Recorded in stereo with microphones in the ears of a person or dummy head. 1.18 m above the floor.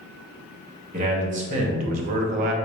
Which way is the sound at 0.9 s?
35° right (ahead or behind).